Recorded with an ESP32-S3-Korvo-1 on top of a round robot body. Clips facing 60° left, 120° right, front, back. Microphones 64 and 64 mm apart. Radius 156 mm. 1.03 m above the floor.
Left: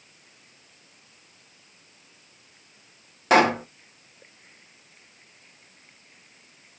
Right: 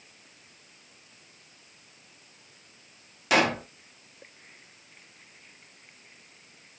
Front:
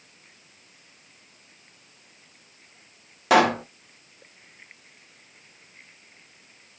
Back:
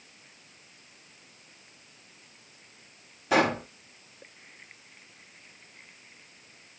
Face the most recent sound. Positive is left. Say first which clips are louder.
# left 5 dB, front 6 dB
turn(degrees=10)